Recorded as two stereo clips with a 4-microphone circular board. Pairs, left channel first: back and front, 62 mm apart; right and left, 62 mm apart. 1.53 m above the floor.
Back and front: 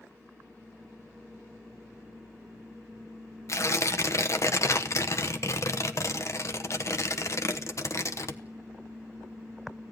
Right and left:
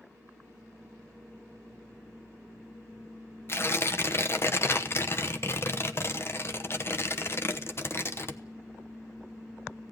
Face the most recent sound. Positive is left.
turn(degrees=-140)